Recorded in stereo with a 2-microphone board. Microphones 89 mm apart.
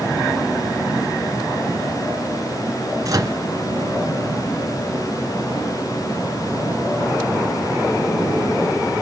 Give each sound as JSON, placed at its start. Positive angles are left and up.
{"t": 3.0, "sound": "a microwave", "side_deg": -40, "distance_m": 2.5}